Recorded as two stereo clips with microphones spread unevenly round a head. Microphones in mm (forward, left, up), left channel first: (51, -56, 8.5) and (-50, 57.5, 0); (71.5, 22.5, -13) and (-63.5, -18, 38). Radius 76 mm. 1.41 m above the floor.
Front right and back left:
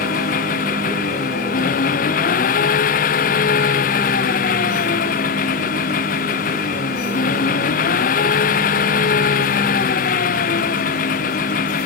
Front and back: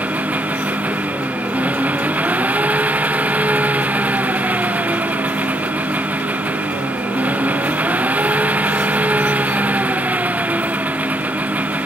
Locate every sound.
0.0 s an engine running: 85° right